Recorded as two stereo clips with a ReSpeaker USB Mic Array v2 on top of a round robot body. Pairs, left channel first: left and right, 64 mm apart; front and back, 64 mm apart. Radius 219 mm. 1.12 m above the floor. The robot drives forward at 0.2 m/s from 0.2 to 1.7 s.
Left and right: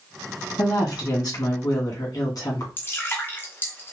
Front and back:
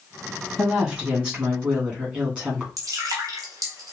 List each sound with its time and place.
0.6 s a woman speaking: 105° left, 2.5 m; by 2.7 s 110° left, 2.5 m
2.8 s dripping: 150° left, 0.7 m